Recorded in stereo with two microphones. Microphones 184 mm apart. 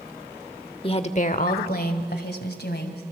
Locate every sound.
0.8 s a woman speaking: 30° left (ahead or behind), 1.0 m; by 3.0 s 70° left (ahead or behind), 2.5 m